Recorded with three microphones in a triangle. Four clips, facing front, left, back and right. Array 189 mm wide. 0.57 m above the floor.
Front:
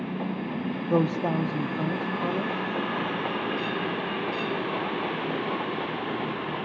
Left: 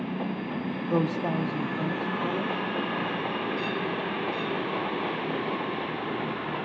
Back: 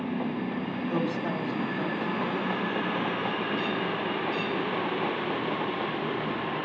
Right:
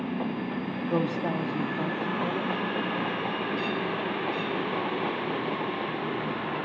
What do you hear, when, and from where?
0.9 s a man speaking: 10° left, 0.8 m